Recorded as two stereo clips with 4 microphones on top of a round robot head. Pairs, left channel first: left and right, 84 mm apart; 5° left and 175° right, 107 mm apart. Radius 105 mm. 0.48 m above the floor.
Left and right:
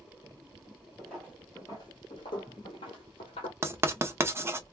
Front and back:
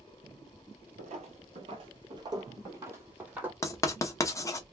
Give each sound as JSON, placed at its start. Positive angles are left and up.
{"t": 1.0, "sound": "footsteps", "azimuth_deg": 180, "distance_m": 0.9}
{"t": 3.6, "sound": "writing", "azimuth_deg": -40, "distance_m": 0.8}